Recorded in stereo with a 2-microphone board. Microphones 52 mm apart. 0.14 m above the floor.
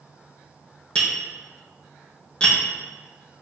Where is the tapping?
20° left (ahead or behind), 2.5 m.